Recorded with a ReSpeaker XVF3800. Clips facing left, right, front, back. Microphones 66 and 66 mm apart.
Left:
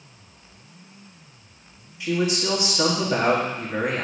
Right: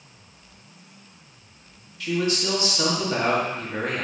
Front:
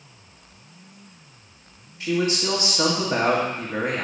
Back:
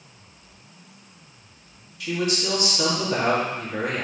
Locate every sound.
2.0 s a man speaking: 30° left, 1.4 m